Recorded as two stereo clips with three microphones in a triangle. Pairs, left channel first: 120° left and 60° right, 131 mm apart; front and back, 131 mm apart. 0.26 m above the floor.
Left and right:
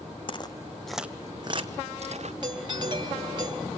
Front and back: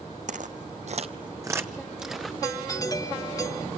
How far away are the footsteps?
About 0.9 m.